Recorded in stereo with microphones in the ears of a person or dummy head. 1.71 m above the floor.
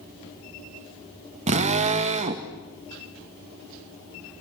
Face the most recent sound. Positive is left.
turn(degrees=-35)  # may be behind; listen again after turning